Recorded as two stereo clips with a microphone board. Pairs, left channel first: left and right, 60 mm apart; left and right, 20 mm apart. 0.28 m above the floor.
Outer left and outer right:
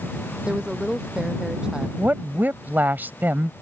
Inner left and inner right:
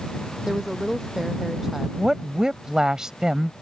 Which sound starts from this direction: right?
A woman speaking, at 2.0 s.